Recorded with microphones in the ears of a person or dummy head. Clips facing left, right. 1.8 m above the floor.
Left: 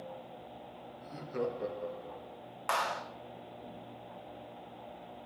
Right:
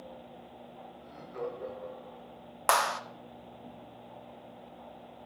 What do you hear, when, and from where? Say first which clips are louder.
1.0 s laughter: left 3 dB; 50° left (ahead or behind), 2.5 m; by 2.4 s 60° left (ahead or behind), 1.9 m
2.7 s a clap: right 5 dB; 65° right (ahead or behind), 0.9 m